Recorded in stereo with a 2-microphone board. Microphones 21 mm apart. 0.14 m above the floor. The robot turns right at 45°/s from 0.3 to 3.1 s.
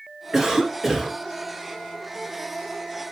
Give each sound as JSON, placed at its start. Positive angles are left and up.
{"t": 0.3, "sound": "a cough", "side_deg": -5, "distance_m": 1.7}